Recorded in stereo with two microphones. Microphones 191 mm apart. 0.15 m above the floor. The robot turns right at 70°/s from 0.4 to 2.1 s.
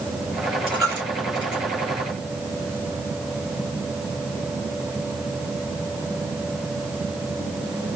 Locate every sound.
0.7 s a dropped coin: 30° right (ahead or behind), 4 m; by 1.6 s 40° left (ahead or behind), 4 m